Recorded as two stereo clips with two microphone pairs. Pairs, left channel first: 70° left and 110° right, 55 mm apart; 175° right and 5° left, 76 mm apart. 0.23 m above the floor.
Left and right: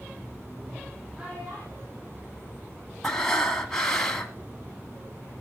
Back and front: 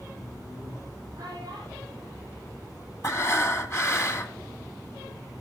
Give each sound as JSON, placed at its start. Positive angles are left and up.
{"t": 1.1, "sound": "a child speaking", "azimuth_deg": -35, "distance_m": 9.5}
{"t": 3.0, "sound": "breathing", "azimuth_deg": 145, "distance_m": 1.7}